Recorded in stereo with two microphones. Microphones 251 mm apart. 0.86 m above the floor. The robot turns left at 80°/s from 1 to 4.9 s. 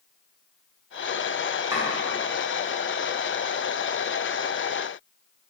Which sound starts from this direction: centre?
Chopping, at 1.7 s.